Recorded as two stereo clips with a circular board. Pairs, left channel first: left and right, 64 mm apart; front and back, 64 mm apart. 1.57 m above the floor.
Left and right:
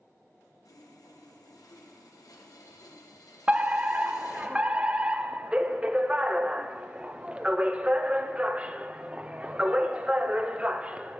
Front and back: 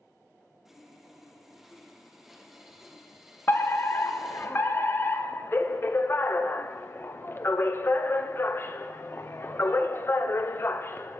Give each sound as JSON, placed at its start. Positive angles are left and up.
{"t": 0.7, "sound": "sawing", "azimuth_deg": 95, "distance_m": 1.2}
{"t": 3.5, "sound": "a fire alarm", "azimuth_deg": -30, "distance_m": 0.6}